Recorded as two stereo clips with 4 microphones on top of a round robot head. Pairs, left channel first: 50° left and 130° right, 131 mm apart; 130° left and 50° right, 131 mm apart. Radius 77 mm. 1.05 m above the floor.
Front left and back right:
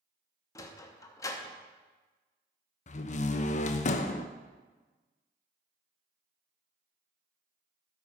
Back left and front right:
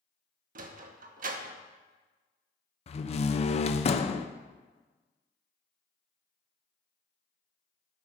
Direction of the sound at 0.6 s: 20° right.